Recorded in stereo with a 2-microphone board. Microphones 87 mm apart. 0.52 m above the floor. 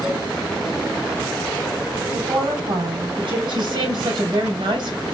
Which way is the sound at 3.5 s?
65° right (ahead or behind).